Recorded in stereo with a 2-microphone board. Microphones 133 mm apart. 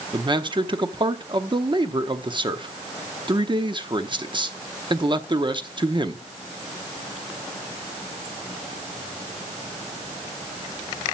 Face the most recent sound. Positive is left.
turn(degrees=-35)  # may be behind; listen again after turning